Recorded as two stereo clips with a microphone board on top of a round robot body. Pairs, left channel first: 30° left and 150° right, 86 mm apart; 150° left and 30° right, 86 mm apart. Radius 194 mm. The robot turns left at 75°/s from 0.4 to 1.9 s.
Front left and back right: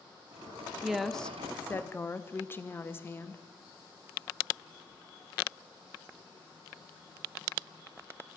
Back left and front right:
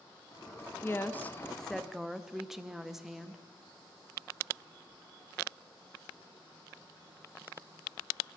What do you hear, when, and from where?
0.8 s a woman speaking: 135° left, 1.1 m; by 3.4 s 50° left, 1.1 m